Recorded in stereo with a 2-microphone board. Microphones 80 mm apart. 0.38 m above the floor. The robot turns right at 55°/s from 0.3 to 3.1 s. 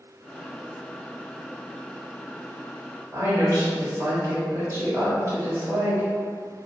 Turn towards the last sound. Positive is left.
turn(degrees=-40)  # may be behind; listen again after turning